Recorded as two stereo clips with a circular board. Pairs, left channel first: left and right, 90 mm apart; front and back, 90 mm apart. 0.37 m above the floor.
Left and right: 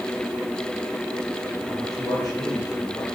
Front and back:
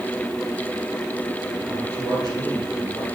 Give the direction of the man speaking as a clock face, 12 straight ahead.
8 o'clock.